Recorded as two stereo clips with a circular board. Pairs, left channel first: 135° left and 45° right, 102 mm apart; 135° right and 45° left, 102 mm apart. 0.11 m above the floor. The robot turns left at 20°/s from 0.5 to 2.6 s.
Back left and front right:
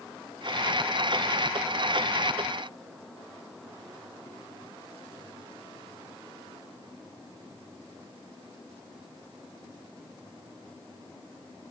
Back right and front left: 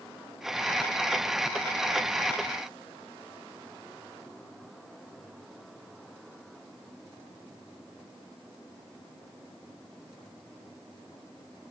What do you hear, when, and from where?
Only background noise.